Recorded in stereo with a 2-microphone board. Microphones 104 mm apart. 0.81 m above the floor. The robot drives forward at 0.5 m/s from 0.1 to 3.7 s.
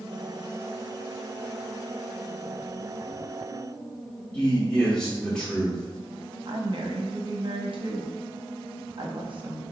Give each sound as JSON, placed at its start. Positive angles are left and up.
{"t": 4.3, "sound": "a man speaking", "side_deg": 5, "distance_m": 2.0}
{"t": 6.5, "sound": "a woman speaking", "side_deg": -55, "distance_m": 0.8}